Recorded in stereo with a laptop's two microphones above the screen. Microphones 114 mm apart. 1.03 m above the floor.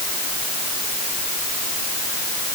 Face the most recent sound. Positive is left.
No sound to turn to.